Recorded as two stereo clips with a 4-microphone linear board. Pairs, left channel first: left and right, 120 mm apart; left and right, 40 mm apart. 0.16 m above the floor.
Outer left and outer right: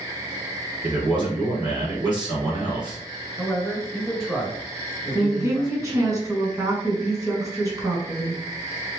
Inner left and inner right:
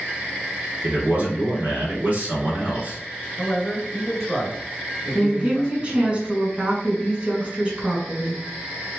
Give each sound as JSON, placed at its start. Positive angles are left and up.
{"t": 0.8, "sound": "a man speaking", "side_deg": -40, "distance_m": 1.8}
{"t": 3.4, "sound": "a man speaking", "side_deg": 0, "distance_m": 1.8}
{"t": 5.2, "sound": "a woman speaking", "side_deg": -25, "distance_m": 1.3}